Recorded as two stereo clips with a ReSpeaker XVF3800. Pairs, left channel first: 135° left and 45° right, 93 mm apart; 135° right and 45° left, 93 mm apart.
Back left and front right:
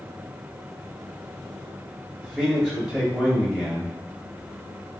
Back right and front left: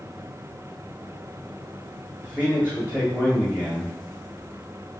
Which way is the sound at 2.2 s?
20° left.